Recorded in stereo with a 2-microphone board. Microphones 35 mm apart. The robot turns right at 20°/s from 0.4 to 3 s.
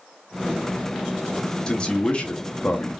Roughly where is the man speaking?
Left.